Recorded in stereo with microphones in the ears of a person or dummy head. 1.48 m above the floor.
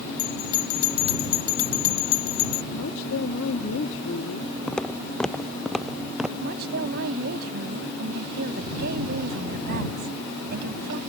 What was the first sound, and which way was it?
A bell, 50° left (ahead or behind).